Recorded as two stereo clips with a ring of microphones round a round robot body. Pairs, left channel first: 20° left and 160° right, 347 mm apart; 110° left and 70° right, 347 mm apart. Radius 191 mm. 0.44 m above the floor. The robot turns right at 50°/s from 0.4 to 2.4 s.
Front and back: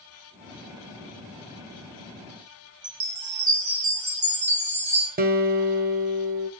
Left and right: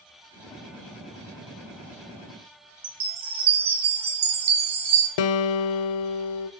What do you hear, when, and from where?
2.8 s a chime: 100° right, 3.5 m
5.2 s a guitar: 135° left, 0.6 m